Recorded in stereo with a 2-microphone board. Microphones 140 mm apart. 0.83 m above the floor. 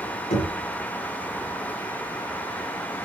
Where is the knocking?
85° left, 5 m.